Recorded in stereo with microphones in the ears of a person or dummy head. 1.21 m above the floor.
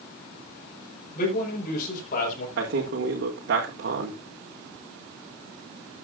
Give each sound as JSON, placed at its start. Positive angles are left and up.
{"t": 1.1, "sound": "a man speaking", "side_deg": 50, "distance_m": 4.5}
{"t": 2.6, "sound": "a man speaking", "side_deg": -60, "distance_m": 3.0}